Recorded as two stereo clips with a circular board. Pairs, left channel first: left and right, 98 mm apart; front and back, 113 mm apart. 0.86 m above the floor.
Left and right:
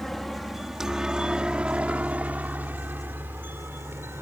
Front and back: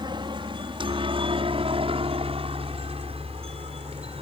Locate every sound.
0.0 s a helicopter: 175° left; by 4.2 s 155° right